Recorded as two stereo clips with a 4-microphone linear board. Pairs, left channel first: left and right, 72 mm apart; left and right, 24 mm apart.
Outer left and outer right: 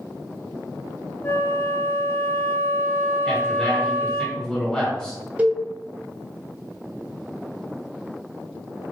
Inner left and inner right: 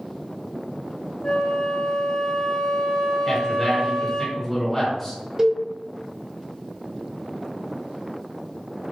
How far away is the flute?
About 0.6 m.